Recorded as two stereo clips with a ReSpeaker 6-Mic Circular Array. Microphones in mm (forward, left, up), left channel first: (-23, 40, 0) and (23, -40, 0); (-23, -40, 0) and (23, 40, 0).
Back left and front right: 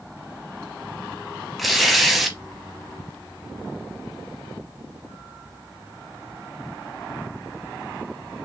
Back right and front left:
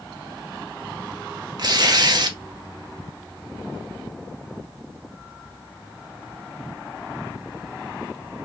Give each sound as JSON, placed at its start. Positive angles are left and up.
{"t": 1.6, "sound": "tearing paper", "azimuth_deg": 30, "distance_m": 0.5}